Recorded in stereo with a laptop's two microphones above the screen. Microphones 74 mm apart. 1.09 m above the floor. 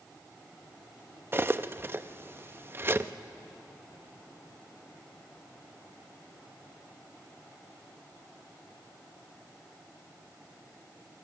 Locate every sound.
1.3 s cutlery clinking: 30° right (ahead or behind), 0.6 m